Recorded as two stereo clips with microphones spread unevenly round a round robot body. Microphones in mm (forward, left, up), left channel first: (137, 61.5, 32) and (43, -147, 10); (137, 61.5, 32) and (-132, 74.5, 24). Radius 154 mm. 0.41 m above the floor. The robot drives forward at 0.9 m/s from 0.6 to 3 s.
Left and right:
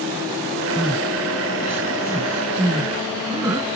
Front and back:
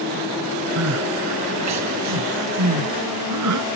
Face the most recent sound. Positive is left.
turn(degrees=170)